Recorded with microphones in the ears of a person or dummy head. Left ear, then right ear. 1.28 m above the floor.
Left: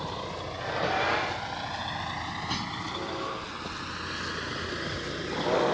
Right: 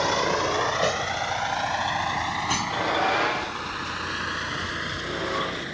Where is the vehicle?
60° right (ahead or behind); by 5.8 s 15° right (ahead or behind).